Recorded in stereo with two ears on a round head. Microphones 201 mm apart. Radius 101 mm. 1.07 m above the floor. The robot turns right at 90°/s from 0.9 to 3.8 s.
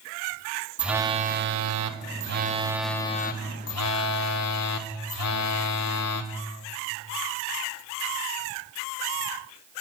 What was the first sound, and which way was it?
A phone buzzing, 175° right.